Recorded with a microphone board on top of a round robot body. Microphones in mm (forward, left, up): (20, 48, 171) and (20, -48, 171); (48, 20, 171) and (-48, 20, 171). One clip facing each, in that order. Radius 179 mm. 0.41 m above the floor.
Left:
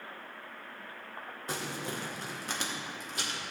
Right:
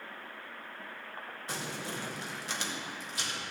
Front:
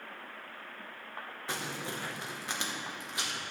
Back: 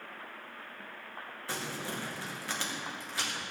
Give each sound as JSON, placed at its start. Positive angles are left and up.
{"t": 1.5, "sound": "crumpling", "azimuth_deg": 65, "distance_m": 2.0}